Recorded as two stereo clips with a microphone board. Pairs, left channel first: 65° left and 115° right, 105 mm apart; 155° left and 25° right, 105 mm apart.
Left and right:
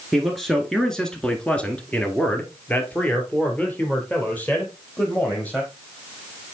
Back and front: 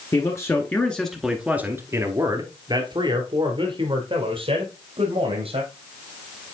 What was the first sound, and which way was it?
A man speaking, 160° left.